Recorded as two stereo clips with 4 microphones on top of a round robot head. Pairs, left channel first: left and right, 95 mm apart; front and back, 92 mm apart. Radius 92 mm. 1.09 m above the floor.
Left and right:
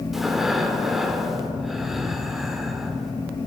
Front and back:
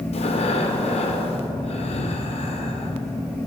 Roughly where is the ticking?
No ticking in this recording.